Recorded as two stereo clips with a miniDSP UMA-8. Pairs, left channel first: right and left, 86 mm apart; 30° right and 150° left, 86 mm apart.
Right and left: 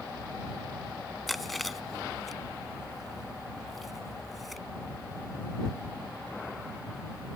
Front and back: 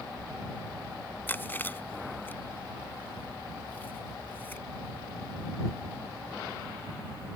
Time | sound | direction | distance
1.3 | chewing | straight ahead | ?